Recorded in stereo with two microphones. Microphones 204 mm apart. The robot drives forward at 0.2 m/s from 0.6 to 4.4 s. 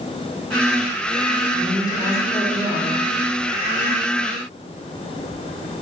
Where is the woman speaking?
20° left (ahead or behind), 3 m.